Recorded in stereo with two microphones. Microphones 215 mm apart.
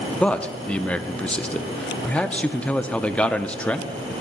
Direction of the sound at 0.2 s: 5° left (ahead or behind).